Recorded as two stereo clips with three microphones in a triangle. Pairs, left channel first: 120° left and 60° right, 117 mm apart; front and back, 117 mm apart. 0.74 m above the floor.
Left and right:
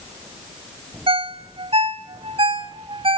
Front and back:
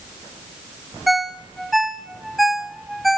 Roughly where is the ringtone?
Right.